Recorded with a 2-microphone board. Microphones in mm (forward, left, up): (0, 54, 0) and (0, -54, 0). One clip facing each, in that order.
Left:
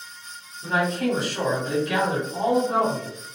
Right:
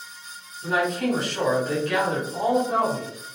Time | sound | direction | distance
0.6 | a man speaking | 5° right (ahead or behind) | 1.4 m